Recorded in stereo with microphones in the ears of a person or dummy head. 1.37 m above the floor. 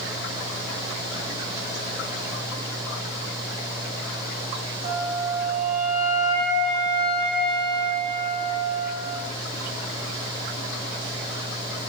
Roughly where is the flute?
Centre.